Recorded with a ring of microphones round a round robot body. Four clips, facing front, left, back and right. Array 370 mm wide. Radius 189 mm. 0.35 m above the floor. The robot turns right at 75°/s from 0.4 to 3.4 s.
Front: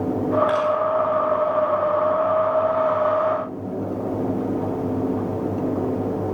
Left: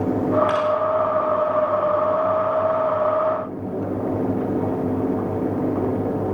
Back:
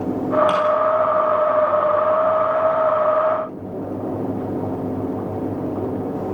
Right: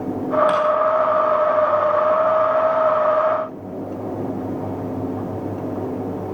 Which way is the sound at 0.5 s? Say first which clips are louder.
Right 2 dB, back 2 dB; 145° right.